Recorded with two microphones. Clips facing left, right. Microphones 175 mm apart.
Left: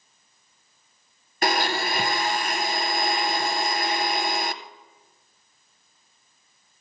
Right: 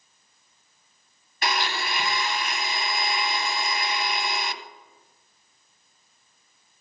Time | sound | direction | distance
1.4 | a blender | 50° left (ahead or behind) | 0.8 m